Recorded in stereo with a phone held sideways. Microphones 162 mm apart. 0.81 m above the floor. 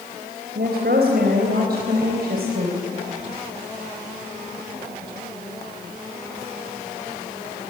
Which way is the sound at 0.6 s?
80° right.